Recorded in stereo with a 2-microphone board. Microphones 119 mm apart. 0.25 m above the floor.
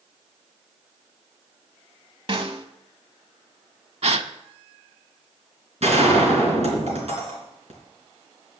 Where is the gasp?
65° right (ahead or behind), 0.6 m.